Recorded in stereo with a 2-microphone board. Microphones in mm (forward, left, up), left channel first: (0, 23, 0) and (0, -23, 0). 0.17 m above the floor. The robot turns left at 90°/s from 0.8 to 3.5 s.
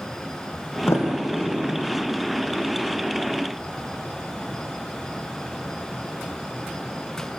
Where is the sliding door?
70° left (ahead or behind), 5 m; by 2.0 s 10° left (ahead or behind), 5 m.